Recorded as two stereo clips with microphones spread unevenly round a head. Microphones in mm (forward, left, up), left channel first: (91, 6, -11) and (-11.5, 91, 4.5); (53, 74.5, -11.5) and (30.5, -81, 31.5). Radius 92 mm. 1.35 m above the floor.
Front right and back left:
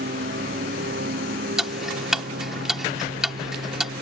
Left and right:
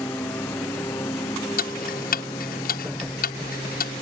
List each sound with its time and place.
0.0 s a lawn mower: 165° left; by 4.0 s 155° left
1.6 s ticking: 55° left